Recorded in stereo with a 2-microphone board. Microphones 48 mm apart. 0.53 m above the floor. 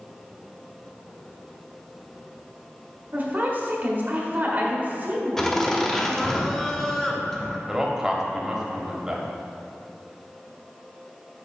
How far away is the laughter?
About 0.7 m.